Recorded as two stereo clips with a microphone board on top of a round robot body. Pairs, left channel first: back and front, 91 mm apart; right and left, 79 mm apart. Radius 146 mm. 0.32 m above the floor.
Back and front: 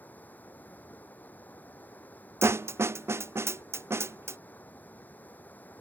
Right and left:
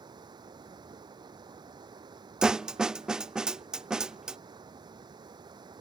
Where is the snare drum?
15° left.